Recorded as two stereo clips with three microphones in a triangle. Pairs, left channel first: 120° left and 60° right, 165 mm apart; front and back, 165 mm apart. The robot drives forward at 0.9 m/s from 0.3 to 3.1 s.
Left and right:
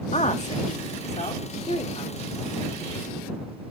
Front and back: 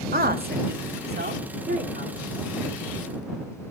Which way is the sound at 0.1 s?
165° left.